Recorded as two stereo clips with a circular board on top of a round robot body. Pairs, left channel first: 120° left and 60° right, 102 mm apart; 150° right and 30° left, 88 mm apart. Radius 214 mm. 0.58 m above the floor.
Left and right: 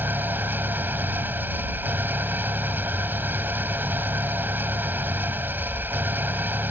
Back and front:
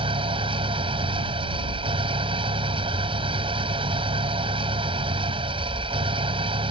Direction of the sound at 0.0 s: 15° left.